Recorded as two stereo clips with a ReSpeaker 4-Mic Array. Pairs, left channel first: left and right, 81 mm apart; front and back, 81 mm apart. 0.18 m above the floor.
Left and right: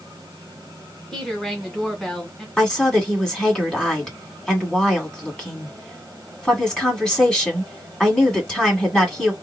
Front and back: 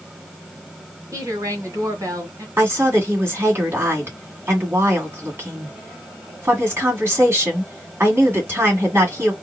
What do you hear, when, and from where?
1.1 s a woman speaking: 170° left, 1.9 m
2.6 s a woman speaking: 160° left, 1.7 m